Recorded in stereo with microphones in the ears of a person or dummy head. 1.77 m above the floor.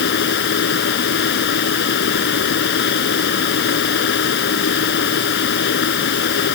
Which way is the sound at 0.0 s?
65° left (ahead or behind).